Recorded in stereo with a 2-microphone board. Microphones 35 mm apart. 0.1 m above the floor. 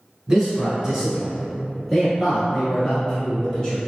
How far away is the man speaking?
About 1.6 m.